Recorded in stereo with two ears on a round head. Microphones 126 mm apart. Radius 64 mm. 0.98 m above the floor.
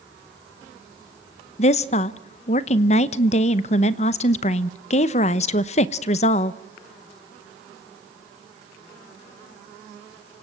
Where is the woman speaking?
45° left (ahead or behind), 0.9 m.